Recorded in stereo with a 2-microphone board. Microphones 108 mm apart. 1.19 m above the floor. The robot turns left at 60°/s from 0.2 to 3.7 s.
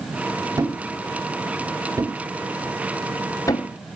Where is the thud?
35° right (ahead or behind), 0.9 m; by 3.7 s 40° left (ahead or behind), 0.9 m.